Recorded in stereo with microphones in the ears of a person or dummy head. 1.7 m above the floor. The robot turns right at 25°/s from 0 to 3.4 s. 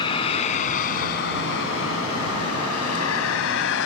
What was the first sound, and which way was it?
A vehicle, 25° left (ahead or behind).